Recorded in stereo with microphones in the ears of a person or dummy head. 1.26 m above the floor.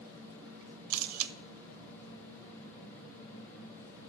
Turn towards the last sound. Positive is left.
turn(degrees=-80)